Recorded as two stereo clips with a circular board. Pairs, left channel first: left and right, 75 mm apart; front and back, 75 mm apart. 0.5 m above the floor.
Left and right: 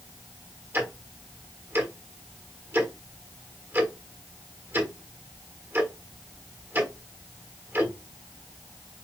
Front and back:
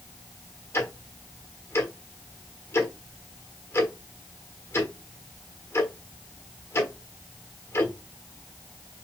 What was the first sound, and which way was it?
Ticking, 45° right.